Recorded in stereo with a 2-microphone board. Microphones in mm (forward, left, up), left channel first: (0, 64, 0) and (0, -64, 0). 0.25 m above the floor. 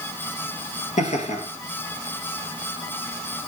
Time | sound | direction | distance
1.0 | laughter | 70° left (ahead or behind) | 4.5 m